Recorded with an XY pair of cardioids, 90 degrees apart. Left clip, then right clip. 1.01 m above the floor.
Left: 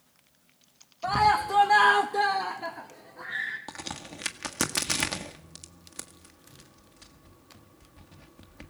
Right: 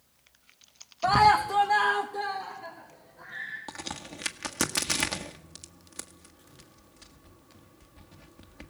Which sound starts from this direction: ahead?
A crack, at 3.7 s.